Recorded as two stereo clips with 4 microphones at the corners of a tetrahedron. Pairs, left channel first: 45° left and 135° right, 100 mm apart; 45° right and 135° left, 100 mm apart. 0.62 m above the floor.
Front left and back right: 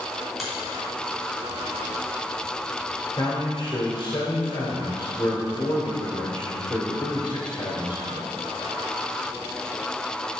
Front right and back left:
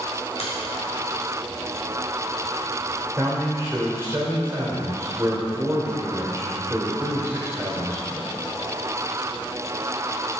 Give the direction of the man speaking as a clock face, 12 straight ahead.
9 o'clock.